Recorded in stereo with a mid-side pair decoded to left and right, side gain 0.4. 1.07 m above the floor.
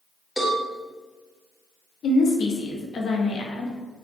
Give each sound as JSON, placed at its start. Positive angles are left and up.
{"t": 0.4, "sound": "a cowbell", "azimuth_deg": 20, "distance_m": 1.9}
{"t": 2.0, "sound": "a woman speaking", "azimuth_deg": 65, "distance_m": 1.1}